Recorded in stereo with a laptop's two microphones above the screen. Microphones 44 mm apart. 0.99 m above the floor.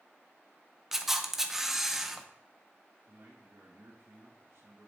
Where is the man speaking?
65° right (ahead or behind), 1.5 m.